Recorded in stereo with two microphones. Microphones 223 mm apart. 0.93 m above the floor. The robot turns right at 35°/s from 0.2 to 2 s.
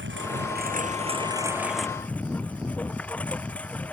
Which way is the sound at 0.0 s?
55° right.